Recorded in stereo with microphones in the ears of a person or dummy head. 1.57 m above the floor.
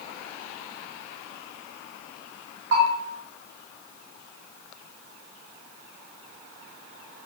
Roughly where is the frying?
I don't hear frying.